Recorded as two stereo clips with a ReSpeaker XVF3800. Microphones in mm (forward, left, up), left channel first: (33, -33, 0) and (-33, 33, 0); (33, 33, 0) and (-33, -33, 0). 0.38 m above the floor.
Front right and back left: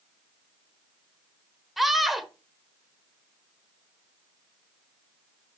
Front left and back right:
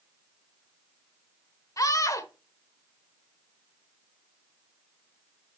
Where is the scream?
50° left, 1.0 m.